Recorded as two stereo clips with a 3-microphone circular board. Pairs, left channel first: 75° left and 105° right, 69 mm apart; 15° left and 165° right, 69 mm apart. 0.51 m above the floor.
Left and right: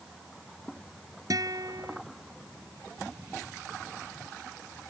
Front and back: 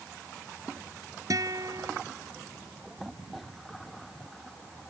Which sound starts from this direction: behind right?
A guitar, at 1.3 s.